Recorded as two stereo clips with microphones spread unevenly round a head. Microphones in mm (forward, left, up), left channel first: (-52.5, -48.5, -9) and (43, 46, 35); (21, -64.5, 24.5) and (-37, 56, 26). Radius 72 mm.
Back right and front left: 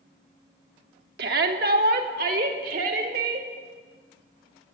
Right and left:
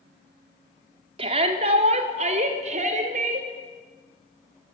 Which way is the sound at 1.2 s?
65° left.